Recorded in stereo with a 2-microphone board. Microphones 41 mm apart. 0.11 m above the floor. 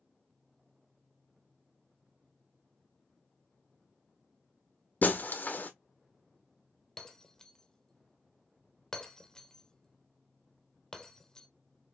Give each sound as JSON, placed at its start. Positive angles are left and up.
{"t": 5.0, "sound": "breaking glass", "side_deg": 50, "distance_m": 0.7}
{"t": 7.0, "sound": "breaking glass", "side_deg": 15, "distance_m": 0.7}